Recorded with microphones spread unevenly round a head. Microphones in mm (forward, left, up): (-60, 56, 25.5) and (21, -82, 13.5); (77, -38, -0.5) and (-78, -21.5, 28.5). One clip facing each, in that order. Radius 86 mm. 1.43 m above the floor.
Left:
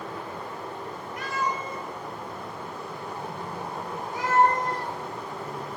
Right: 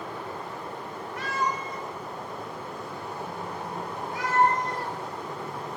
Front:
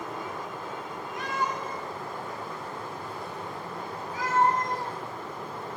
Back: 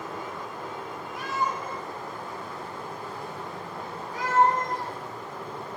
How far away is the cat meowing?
About 1.9 m.